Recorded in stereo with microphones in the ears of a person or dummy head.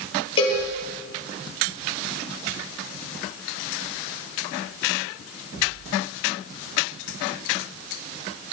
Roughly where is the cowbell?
Left.